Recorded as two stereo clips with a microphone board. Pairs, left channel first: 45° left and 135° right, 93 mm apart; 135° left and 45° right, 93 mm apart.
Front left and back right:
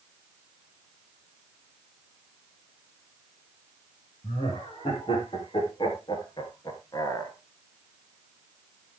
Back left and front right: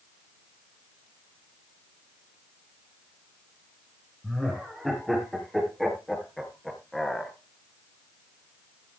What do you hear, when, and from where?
4.2 s laughter: 45° left, 4.5 m; by 7.3 s 50° left, 1.8 m